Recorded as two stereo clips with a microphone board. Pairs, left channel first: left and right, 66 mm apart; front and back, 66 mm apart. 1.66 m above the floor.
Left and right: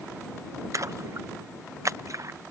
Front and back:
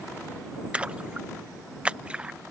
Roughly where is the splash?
Right.